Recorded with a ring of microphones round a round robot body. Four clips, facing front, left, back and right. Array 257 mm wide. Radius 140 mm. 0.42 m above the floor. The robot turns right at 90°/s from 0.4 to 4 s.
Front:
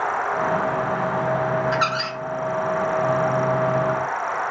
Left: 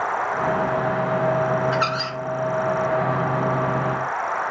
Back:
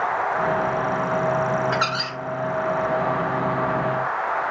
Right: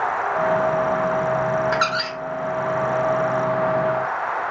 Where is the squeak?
100° right, 1.5 m; by 2.2 s 60° right, 1.5 m.